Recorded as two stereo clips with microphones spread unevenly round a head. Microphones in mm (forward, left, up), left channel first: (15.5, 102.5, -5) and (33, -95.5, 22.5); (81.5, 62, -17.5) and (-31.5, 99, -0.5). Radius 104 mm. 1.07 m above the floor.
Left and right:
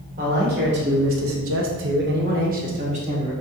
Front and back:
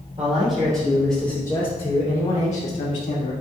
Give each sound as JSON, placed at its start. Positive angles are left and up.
{"t": 0.2, "sound": "a man speaking", "azimuth_deg": -140, "distance_m": 2.0}